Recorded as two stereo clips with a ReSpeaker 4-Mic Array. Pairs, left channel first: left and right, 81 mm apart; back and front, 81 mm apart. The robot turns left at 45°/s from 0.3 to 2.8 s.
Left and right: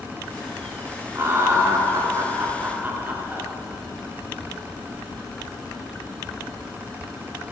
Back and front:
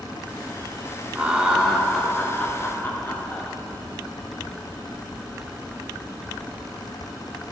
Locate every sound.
1.1 s laughter: 60° right, 0.7 m; by 3.5 s 135° right, 0.7 m